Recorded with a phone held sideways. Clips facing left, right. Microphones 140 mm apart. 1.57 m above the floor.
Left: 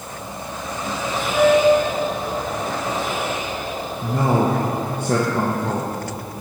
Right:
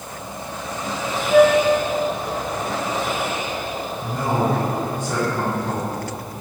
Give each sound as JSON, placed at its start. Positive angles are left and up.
{"t": 1.3, "sound": "a flute", "side_deg": -65, "distance_m": 0.6}
{"t": 4.0, "sound": "a man speaking", "side_deg": 60, "distance_m": 0.9}